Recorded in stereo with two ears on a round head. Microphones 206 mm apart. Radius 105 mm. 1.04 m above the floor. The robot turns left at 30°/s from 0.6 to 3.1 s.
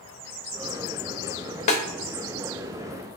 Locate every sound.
1.7 s a snare drum: 35° left (ahead or behind), 0.6 m